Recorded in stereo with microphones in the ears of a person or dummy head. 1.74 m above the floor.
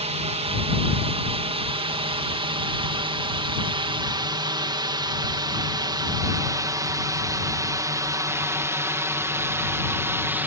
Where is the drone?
30° right (ahead or behind); by 10.5 s 10° right (ahead or behind).